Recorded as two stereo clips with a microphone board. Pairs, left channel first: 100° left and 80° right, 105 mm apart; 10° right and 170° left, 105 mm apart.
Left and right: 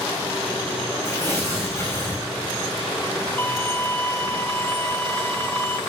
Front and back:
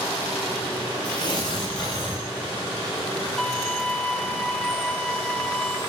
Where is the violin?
60° left, 0.9 m.